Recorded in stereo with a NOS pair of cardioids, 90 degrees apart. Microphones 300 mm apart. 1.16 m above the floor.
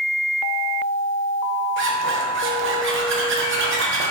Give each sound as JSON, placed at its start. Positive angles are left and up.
{"t": 1.8, "sound": "a zipper", "azimuth_deg": -40, "distance_m": 0.7}